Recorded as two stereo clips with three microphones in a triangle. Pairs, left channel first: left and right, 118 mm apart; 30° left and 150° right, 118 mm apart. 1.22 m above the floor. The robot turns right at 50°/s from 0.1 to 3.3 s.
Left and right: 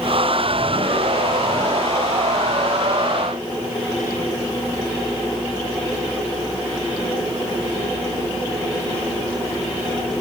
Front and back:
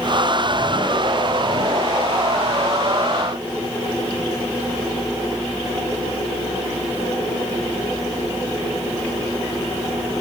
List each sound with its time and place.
Only background noise.